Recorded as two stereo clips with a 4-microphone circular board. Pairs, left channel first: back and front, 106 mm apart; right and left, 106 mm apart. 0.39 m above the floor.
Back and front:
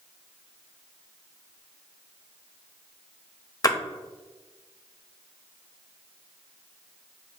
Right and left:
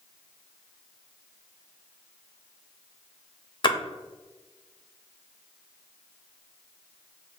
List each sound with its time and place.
3.6 s a splash: 130° right, 0.5 m